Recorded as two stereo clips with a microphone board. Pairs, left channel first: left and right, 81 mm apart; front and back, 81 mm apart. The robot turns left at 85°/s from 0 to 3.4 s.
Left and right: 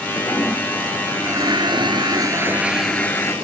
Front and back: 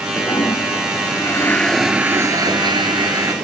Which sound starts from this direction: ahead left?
A toilet flushing, at 0.2 s.